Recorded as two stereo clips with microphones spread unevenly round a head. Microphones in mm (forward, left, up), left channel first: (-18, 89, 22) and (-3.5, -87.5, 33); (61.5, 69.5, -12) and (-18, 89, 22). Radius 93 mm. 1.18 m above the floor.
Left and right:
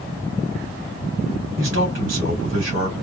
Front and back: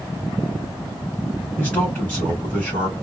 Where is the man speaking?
90° right, 2.5 m.